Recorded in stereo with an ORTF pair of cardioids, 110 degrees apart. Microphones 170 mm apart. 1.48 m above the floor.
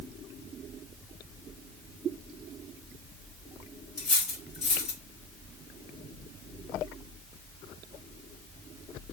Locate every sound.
4.0 s cutlery clinking: 40° left, 1.8 m